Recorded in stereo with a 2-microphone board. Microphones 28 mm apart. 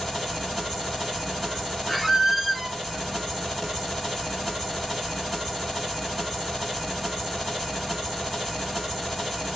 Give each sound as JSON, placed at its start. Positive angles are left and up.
{"t": 0.0, "sound": "an engine running", "side_deg": -5, "distance_m": 2.0}
{"t": 1.9, "sound": "a squeak", "side_deg": -5, "distance_m": 0.6}